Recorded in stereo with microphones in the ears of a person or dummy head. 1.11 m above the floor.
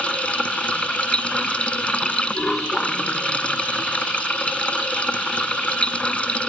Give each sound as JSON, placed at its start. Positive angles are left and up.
{"t": 0.0, "sound": "running water", "side_deg": 5}